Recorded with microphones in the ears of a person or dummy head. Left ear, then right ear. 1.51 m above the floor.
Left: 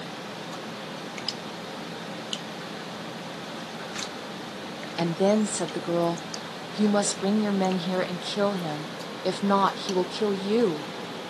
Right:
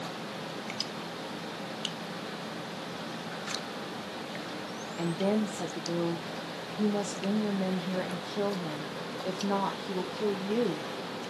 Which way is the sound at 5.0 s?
50° left (ahead or behind).